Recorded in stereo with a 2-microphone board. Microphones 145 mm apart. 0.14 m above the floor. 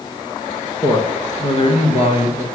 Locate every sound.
0.8 s a man speaking: 25° left (ahead or behind), 1.4 m; by 2.4 s 45° left (ahead or behind), 2.5 m